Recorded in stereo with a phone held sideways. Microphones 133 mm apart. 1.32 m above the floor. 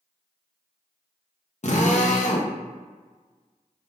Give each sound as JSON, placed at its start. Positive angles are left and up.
{"t": 1.6, "sound": "a drill", "side_deg": 60, "distance_m": 0.8}